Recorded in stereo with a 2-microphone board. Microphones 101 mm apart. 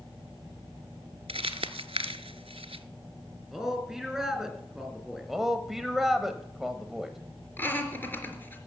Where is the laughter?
20° left (ahead or behind), 4 m.